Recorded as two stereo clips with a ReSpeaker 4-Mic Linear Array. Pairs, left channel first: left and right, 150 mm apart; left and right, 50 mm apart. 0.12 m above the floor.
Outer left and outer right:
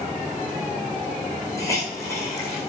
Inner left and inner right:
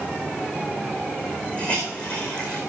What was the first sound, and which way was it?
A hiss, 20° left (ahead or behind).